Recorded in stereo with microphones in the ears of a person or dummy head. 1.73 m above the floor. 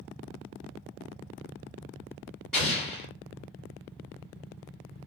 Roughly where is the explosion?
Centre.